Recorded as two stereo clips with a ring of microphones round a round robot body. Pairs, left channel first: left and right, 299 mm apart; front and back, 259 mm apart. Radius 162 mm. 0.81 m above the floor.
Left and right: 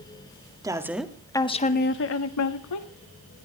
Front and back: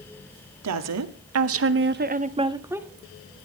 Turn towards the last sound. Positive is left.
turn(degrees=95)